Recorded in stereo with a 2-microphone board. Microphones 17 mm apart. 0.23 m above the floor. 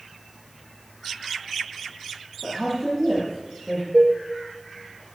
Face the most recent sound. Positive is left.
turn(degrees=-55)  # may be behind; listen again after turning